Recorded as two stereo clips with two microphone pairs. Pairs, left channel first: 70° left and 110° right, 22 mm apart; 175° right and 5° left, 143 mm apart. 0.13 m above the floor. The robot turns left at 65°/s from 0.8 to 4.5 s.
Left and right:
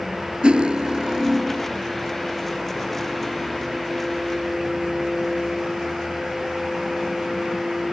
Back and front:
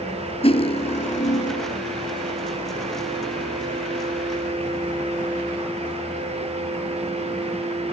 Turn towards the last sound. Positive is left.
turn(degrees=-15)